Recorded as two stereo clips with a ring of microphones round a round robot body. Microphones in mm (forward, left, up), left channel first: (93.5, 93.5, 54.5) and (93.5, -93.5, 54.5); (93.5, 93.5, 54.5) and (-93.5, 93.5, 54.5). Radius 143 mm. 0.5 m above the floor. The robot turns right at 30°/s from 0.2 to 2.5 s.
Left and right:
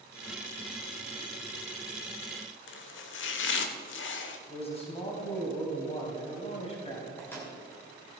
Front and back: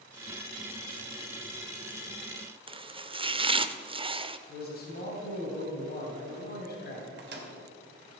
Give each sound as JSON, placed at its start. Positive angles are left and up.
{"t": 2.7, "sound": "chopping", "azimuth_deg": 115, "distance_m": 0.8}
{"t": 4.5, "sound": "a man speaking", "azimuth_deg": 35, "distance_m": 3.0}
{"t": 7.2, "sound": "a microwave", "azimuth_deg": 170, "distance_m": 2.5}